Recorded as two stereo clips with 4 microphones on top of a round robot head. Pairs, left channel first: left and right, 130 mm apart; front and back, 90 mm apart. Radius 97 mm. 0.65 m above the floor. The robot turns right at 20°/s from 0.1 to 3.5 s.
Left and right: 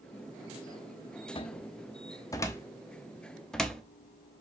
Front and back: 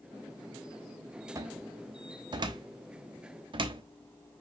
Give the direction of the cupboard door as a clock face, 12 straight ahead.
8 o'clock.